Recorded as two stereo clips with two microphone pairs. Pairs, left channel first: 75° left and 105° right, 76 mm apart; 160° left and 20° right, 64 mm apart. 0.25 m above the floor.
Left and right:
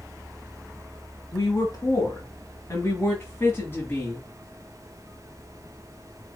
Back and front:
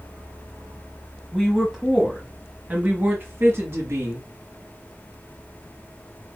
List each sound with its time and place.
1.3 s a woman speaking: 75° left, 1.3 m; by 4.3 s 5° left, 1.9 m